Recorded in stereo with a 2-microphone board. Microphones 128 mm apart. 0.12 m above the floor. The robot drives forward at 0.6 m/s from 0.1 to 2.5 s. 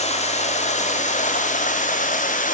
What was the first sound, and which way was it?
Running water, 55° left (ahead or behind).